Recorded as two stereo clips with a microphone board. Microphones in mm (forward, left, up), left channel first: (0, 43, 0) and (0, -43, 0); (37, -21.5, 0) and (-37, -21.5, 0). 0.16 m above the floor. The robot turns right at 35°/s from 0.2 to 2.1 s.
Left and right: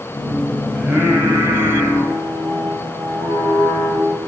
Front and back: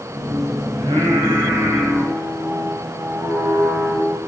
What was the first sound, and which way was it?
Singing, 165° right.